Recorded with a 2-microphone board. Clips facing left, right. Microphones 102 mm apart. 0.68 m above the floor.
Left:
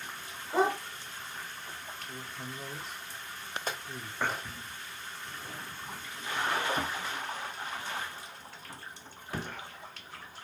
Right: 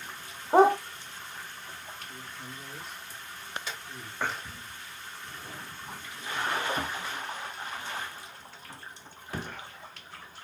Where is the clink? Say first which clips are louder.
Left 3 dB; 45° left (ahead or behind), 1.4 m.